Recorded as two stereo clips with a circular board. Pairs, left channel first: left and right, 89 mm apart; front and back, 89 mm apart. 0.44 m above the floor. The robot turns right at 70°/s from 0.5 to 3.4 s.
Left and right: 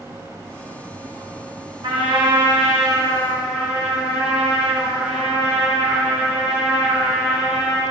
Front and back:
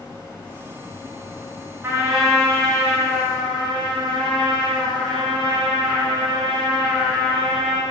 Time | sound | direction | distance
1.8 | a trumpet | 120° right | 5 m